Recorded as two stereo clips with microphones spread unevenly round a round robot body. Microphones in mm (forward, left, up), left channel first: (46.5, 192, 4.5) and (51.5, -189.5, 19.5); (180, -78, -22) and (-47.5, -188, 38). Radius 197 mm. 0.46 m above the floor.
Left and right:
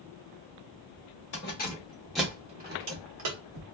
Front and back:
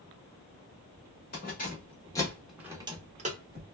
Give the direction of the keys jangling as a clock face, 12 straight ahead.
11 o'clock.